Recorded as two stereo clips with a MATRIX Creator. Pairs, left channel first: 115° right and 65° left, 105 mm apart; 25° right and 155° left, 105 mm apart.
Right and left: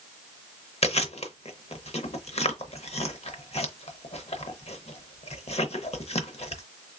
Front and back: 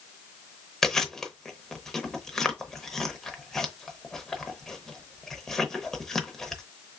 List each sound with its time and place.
0.8 s chewing: 110° right, 0.7 m